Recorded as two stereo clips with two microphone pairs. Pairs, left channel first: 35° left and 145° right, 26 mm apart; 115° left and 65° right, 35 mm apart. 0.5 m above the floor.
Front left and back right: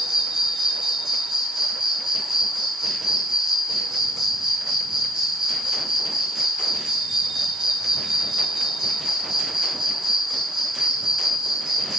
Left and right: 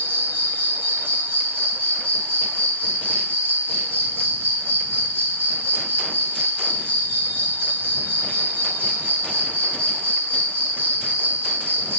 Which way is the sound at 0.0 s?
80° right.